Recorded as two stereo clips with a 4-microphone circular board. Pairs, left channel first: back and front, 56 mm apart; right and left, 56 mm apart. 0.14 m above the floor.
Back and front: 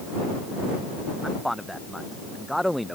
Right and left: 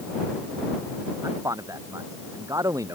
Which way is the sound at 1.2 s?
90° left.